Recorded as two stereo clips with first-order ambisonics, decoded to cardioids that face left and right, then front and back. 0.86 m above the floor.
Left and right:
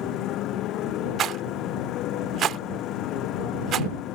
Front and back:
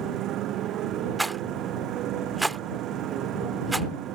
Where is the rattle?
105° right.